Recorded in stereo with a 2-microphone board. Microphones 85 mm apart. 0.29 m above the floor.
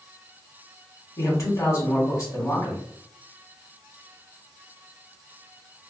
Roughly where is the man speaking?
Left.